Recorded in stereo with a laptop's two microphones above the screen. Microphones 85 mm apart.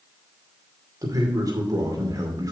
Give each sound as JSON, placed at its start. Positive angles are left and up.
{"t": 1.0, "sound": "a man speaking", "side_deg": -45, "distance_m": 2.5}